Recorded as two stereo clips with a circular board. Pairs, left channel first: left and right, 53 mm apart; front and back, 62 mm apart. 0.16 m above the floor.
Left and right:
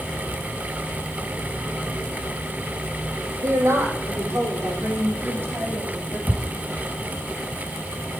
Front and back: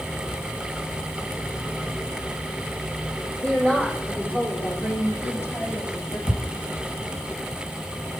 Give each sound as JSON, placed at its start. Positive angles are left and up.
{"t": 3.4, "sound": "a woman speaking", "azimuth_deg": -65, "distance_m": 5.0}
{"t": 6.3, "sound": "ticking", "azimuth_deg": -5, "distance_m": 6.0}